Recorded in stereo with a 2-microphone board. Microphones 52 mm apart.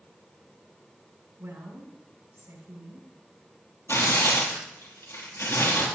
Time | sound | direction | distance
1.4 | a woman speaking | 60° right (ahead or behind) | 5 m
3.9 | tearing paper | 70° left (ahead or behind) | 3.5 m